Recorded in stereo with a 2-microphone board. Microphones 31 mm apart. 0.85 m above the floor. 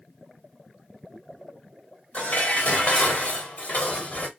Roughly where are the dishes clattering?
Left.